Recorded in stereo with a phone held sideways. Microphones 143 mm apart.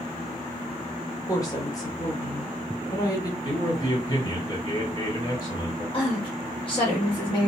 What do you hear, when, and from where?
1.3 s a woman speaking: 25° left (ahead or behind), 0.8 m
3.4 s a man speaking: 30° left (ahead or behind), 2 m
5.9 s a woman speaking: 35° left (ahead or behind), 1.5 m